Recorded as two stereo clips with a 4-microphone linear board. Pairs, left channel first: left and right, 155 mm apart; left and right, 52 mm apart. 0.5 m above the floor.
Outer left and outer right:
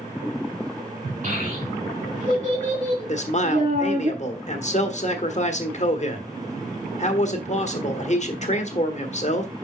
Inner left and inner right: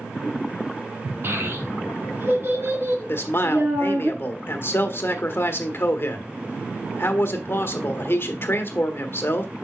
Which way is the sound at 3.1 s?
50° left (ahead or behind).